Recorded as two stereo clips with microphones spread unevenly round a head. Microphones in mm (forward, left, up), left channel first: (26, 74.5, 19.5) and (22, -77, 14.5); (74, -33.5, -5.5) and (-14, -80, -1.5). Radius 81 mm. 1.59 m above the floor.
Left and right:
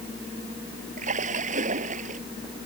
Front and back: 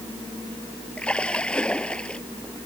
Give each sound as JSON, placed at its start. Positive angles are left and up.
{"t": 1.0, "sound": "a splash", "azimuth_deg": -50}